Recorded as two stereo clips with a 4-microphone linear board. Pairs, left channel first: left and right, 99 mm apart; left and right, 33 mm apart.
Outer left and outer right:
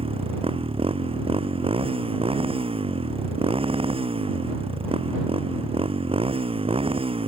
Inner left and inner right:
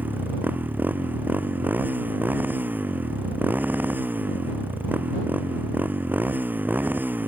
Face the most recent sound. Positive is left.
turn(degrees=-70)  # may be behind; listen again after turning